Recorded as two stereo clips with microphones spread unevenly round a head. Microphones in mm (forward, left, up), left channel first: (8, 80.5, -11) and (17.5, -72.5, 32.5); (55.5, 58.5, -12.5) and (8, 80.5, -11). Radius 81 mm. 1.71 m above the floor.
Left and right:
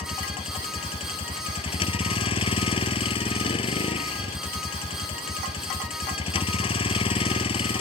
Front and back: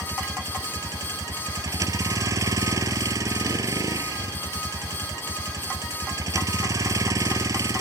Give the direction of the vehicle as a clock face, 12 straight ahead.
7 o'clock.